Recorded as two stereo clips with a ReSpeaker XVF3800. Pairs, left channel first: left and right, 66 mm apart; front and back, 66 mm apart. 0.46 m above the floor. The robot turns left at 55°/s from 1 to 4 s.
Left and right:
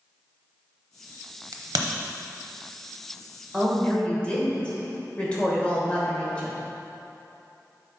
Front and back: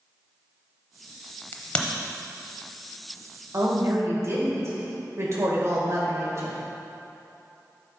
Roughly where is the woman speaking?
Behind.